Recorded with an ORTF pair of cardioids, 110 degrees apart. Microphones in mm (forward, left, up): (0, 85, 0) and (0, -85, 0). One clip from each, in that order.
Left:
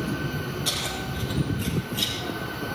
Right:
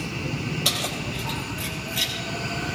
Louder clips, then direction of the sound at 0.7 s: Right 4 dB; 70° right.